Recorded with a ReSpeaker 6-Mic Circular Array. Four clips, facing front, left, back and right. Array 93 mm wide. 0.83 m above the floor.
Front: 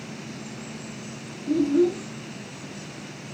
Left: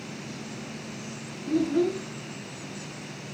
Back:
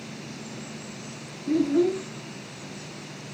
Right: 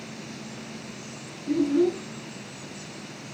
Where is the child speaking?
150° left, 8.5 m.